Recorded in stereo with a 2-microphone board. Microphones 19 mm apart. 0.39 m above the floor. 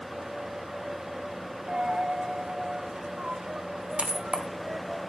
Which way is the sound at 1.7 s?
65° right (ahead or behind).